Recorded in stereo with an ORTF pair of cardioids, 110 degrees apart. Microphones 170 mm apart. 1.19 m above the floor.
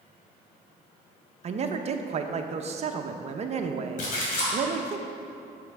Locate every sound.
1.4 s a man speaking: 40° right, 0.8 m
4.0 s a splash: 55° left, 2.5 m